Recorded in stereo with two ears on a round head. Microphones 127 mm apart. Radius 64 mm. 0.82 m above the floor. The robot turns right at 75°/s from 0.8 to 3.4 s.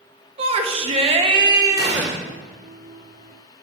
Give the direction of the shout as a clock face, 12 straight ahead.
3 o'clock.